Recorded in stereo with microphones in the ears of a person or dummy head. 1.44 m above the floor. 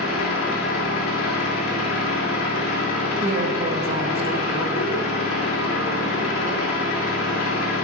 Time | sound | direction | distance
0.0 | an engine running | 80° left | 3 m
3.2 | a woman speaking | 30° right (ahead or behind) | 1.6 m